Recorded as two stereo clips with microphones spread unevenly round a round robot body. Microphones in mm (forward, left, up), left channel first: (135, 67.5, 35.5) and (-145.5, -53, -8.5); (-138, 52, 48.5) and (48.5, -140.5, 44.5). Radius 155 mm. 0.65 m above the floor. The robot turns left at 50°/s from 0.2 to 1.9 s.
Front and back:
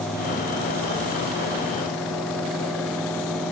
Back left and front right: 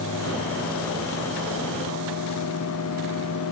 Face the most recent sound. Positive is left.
No sound to turn to.